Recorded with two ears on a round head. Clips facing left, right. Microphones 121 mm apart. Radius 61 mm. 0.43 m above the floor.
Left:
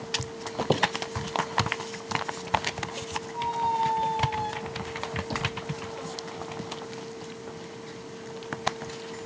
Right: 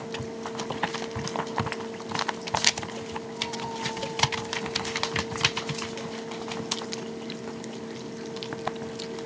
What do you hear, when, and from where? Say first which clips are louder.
0.6 s a squeak: left 7 dB; 50° left (ahead or behind)
3.3 s a squeak: left 12 dB; 85° left